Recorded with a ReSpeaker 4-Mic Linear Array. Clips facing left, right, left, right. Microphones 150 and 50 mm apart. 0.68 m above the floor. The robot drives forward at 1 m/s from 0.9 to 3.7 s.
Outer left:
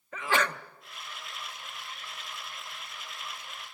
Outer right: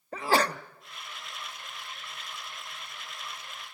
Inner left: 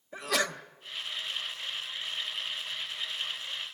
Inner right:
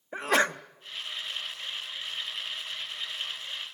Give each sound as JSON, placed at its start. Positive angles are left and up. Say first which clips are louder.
{"t": 0.1, "sound": "a sneeze", "louder": "outer right 4 dB, inner right 5 dB", "side_deg": -40, "distance_m": 0.7}